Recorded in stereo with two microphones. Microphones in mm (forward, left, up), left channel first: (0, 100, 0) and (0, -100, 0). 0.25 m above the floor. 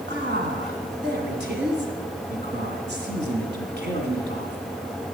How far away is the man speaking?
About 2 m.